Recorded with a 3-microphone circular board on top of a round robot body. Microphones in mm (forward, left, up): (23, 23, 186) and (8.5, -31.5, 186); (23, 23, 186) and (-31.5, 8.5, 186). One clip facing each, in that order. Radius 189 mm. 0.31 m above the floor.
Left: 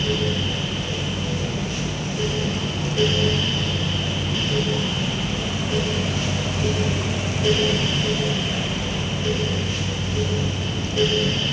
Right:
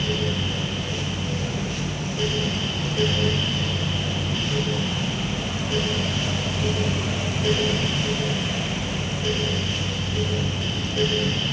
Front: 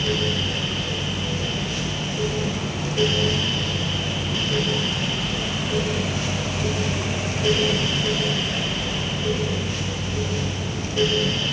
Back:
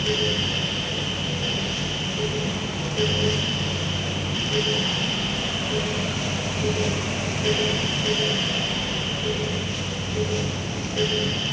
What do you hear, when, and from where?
Only background noise.